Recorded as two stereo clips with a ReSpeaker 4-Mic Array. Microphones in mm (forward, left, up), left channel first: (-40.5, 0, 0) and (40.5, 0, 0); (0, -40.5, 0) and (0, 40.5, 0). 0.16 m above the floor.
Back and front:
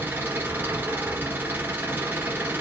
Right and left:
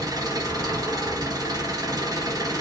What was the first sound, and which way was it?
An engine running, 65° left.